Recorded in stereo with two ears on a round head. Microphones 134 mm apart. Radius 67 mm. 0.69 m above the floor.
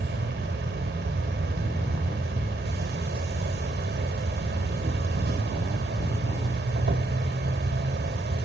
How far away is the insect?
About 1.6 m.